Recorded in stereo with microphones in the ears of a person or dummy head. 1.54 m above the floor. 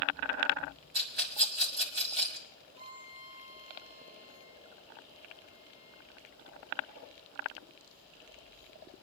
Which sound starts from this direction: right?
A rattle, at 0.9 s.